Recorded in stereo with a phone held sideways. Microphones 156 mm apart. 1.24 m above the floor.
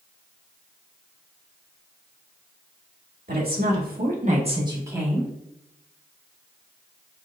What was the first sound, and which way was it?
A woman speaking, 80° right.